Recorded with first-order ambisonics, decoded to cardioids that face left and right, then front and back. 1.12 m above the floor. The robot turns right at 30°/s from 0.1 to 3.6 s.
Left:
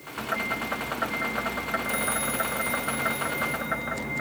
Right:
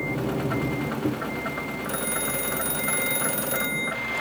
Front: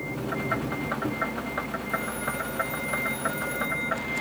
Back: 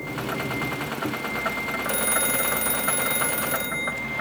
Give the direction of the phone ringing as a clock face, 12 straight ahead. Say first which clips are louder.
Left 1 dB, back 5 dB; 6 o'clock.